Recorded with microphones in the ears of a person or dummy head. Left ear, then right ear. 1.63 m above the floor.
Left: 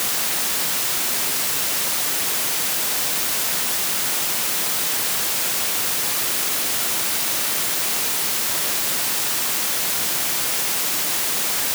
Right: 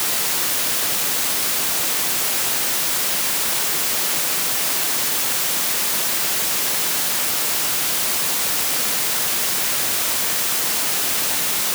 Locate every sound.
Only background noise.